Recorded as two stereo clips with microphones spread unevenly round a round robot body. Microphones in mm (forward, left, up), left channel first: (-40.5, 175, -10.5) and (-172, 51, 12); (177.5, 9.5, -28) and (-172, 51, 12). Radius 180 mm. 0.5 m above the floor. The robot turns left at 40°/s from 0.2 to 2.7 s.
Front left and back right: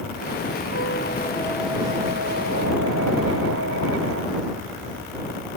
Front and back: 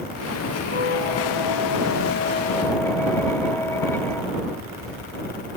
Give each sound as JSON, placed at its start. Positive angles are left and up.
{"t": 0.7, "sound": "a squeak", "azimuth_deg": -10}